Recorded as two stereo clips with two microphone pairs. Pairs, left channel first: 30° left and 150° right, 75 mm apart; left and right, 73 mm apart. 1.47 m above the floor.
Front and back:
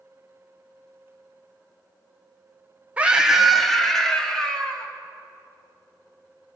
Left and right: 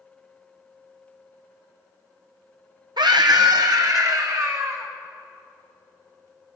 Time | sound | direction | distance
3.0 | a scream | 80° right | 1.3 m